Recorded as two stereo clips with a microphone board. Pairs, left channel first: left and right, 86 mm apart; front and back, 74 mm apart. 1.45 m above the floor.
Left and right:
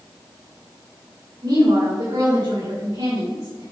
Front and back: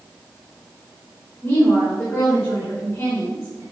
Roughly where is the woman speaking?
Ahead right.